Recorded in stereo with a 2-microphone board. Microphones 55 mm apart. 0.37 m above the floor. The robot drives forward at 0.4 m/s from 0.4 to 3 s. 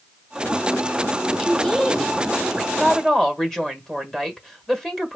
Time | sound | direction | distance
1.4 | a woman speaking | 5° left (ahead or behind) | 1.2 m
2.7 | a woman speaking | 10° left (ahead or behind) | 1.5 m